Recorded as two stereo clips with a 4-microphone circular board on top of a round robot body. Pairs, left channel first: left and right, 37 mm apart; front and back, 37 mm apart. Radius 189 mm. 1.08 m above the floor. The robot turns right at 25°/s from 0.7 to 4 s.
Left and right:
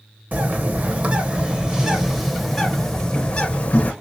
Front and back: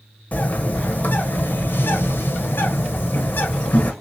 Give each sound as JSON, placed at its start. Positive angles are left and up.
{"t": 0.3, "sound": "a bird", "azimuth_deg": -45, "distance_m": 0.9}